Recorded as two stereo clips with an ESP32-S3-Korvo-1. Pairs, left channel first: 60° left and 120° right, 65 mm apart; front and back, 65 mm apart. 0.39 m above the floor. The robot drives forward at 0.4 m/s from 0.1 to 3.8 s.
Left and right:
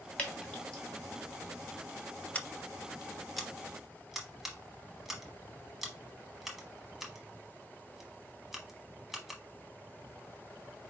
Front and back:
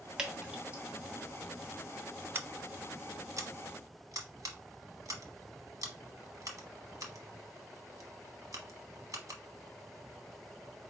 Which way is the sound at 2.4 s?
130° left.